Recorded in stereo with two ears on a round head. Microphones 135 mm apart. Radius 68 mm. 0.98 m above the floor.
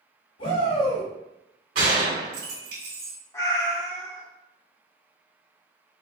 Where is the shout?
60° left (ahead or behind), 1.9 m.